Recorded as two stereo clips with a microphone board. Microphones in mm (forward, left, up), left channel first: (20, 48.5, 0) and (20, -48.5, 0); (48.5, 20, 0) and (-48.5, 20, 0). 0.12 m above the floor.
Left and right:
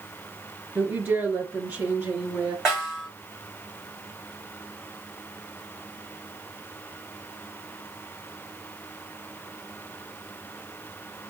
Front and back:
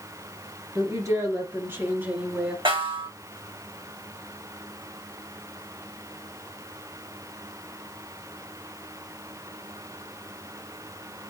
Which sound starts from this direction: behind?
A snare drum, at 2.6 s.